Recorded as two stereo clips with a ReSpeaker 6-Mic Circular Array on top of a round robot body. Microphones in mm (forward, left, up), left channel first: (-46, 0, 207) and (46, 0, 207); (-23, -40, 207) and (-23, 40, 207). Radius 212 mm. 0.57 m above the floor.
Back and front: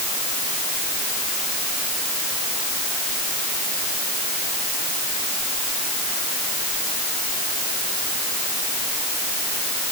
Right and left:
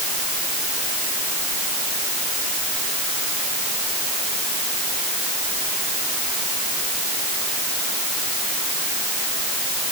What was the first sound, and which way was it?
Only background noise.